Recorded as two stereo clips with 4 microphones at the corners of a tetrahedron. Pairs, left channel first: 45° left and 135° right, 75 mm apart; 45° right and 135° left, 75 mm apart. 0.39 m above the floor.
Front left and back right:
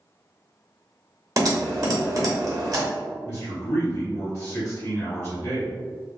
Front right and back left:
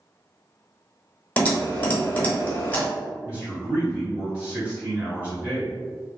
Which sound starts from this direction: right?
Typing on a keyboard, at 1.4 s.